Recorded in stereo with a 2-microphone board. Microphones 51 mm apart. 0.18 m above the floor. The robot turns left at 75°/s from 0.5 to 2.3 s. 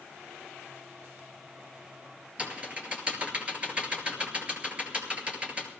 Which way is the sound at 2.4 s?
25° right (ahead or behind).